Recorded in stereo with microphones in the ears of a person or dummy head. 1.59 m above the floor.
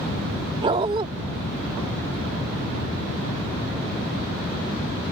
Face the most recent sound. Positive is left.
turn(degrees=-30)  # may be behind; listen again after turning